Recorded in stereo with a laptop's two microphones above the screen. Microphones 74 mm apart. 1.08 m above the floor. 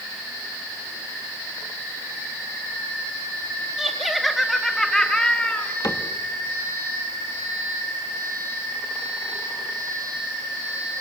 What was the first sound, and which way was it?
Laughter, 5° right (ahead or behind).